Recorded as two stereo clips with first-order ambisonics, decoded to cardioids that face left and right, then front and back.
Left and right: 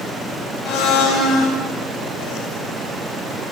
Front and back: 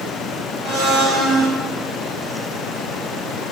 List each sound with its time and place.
0.6 s a blender: 120° left, 6.5 m